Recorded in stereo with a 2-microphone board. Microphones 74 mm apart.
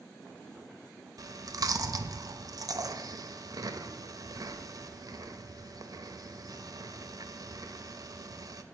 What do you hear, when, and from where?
1.2 s chewing: 55° right (ahead or behind), 0.7 m